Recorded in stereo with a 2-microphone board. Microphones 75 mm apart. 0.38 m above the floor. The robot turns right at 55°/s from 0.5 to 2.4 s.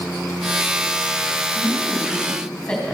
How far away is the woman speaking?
About 3 m.